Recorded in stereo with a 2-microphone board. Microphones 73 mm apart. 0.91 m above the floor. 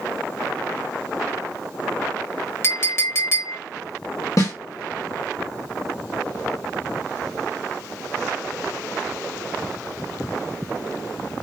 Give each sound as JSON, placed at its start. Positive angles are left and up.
{"t": 2.6, "sound": "a clink", "side_deg": 35, "distance_m": 0.5}
{"t": 4.4, "sound": "a snare drum", "side_deg": 50, "distance_m": 0.9}